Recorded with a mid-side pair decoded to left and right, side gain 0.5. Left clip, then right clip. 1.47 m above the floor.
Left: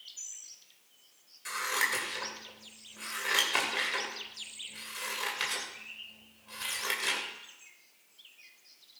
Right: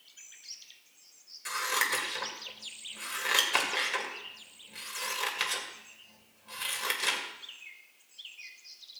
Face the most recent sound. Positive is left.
turn(degrees=-20)